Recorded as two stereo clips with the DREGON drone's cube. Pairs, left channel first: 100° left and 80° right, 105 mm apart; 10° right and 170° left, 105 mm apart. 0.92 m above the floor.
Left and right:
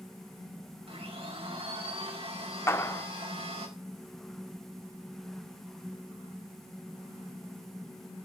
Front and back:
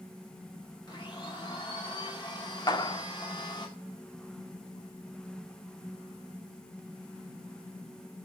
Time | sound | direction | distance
0.9 | a blender | 60° right | 5 m
2.7 | a clap | 35° left | 1.4 m